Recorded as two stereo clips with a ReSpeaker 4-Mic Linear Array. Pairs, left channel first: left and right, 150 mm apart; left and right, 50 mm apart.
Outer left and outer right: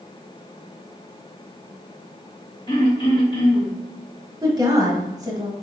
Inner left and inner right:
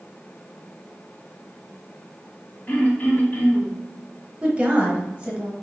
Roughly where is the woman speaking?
Right.